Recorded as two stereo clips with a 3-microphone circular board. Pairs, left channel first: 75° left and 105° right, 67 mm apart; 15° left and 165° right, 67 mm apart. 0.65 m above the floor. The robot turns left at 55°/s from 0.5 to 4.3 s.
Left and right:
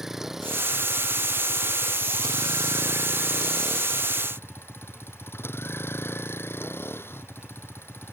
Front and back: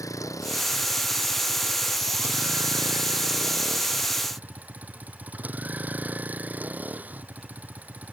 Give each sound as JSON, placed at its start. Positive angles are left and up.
{"t": 0.0, "sound": "a vehicle", "azimuth_deg": -20}